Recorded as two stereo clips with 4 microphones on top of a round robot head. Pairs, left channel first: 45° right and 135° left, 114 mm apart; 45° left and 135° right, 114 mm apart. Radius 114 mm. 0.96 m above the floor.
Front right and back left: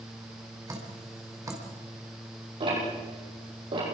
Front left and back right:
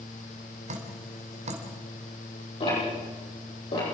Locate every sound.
0.7 s dripping: 160° right, 3.5 m
2.6 s ticking: 90° left, 9.5 m